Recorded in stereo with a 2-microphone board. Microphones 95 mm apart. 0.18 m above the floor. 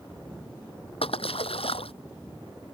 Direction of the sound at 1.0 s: 80° left.